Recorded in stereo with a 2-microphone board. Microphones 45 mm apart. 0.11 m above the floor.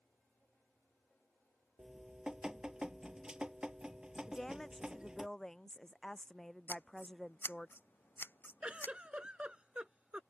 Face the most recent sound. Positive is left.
turn(degrees=-25)  # may be behind; listen again after turning